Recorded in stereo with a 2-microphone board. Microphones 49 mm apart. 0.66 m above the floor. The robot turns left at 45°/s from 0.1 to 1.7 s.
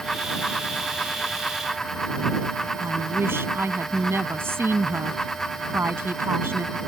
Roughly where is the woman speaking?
Right.